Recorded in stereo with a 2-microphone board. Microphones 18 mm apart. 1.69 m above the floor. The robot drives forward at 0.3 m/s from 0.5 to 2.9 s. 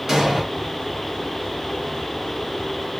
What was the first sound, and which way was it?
An explosion, 35° right (ahead or behind).